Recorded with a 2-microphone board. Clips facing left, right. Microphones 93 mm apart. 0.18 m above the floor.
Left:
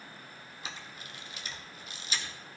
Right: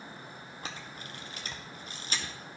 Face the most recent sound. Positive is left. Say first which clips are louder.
# right 2 dB
turn(degrees=-45)  # may be behind; listen again after turning